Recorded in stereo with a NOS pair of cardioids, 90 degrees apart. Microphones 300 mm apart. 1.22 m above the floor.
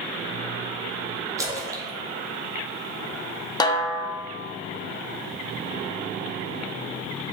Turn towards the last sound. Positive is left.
turn(degrees=15)